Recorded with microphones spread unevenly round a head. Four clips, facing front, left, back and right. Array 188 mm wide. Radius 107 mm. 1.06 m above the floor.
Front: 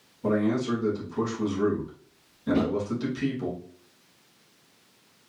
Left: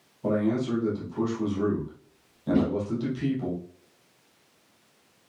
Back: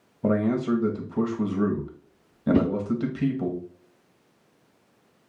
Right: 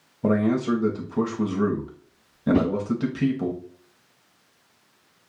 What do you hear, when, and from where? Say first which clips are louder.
0.2 s a man speaking: right 4 dB, back 2 dB; 105° right, 1.5 m
2.5 s a whoosh: right 2 dB, back 3 dB; 120° right, 0.8 m